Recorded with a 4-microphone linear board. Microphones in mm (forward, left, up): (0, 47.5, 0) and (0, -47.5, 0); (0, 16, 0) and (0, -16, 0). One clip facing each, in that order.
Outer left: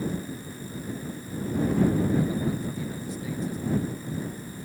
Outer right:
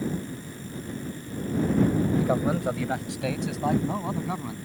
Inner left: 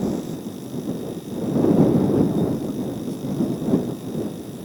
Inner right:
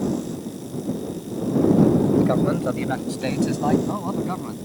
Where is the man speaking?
65° right (ahead or behind); by 4.5 s 80° right.